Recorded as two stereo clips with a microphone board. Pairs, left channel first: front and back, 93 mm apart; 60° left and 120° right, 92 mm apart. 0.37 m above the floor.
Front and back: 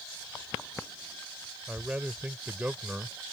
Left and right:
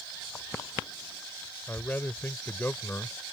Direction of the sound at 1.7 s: 115° left.